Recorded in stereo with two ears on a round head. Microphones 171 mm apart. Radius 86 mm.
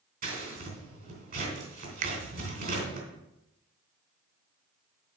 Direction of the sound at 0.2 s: 50° right (ahead or behind).